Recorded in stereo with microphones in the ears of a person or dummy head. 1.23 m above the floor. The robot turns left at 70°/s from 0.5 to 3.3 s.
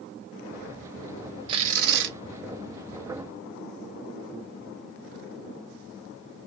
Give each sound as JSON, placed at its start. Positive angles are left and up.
{"t": 1.5, "sound": "tearing paper", "azimuth_deg": -25, "distance_m": 1.0}